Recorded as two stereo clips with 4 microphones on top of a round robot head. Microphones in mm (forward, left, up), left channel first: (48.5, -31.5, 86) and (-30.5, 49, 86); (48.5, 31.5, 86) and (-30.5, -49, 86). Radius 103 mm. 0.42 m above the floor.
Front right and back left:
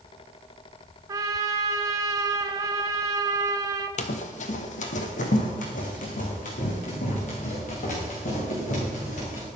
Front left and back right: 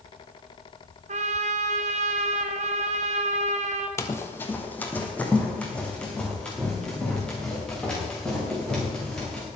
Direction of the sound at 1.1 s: 160° right.